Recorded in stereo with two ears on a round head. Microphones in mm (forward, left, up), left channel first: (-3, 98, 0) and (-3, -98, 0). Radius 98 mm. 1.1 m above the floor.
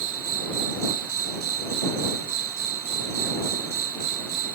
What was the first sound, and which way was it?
An insect, 75° right (ahead or behind).